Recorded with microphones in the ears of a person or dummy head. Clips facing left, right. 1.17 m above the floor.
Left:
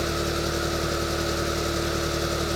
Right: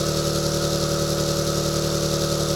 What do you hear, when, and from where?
0.0 s an engine running: 55° right (ahead or behind), 0.7 m